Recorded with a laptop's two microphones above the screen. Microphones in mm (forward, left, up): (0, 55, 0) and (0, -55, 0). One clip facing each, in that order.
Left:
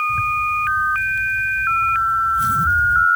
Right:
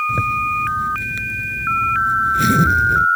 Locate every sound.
0.1 s a zipper: 85° right